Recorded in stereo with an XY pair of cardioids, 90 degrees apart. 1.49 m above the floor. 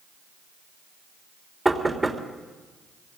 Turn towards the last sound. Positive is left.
turn(degrees=-15)